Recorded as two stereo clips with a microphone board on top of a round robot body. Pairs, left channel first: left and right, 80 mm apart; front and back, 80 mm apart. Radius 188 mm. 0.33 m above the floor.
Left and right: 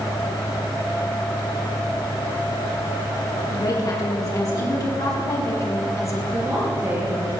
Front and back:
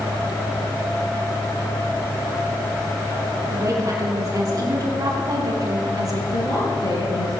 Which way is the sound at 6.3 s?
25° right.